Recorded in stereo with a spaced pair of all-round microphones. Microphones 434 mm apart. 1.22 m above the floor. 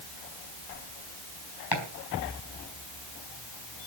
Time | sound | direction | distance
1.7 | chopping | 55° left (ahead or behind) | 4 m